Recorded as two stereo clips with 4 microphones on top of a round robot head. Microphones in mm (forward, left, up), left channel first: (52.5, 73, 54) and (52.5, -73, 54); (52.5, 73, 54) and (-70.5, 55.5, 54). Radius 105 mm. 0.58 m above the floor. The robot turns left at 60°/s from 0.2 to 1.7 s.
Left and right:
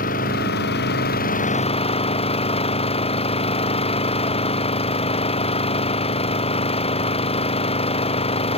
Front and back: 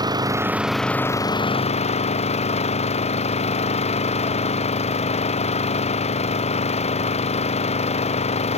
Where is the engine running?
130° left; by 8.6 s 40° left.